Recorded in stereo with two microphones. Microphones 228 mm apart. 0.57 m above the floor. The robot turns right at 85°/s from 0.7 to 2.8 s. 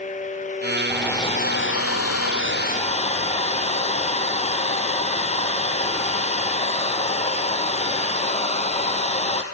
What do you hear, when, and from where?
0.9 s a hair dryer: 10° right, 3 m; by 9.4 s 150° left, 3 m